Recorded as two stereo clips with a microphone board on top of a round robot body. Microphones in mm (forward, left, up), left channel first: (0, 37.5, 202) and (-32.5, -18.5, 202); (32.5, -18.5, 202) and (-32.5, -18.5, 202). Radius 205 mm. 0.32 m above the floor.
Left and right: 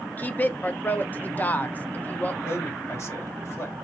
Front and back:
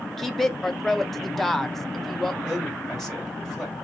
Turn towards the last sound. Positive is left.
turn(degrees=90)